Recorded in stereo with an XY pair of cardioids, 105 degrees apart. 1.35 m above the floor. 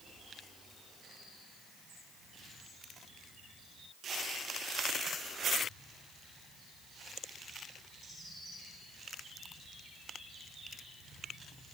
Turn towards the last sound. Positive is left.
No sound to turn to.